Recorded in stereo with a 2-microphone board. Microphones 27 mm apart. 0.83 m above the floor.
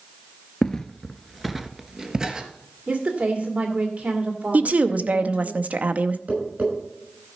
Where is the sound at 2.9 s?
45° right (ahead or behind), 2.5 m.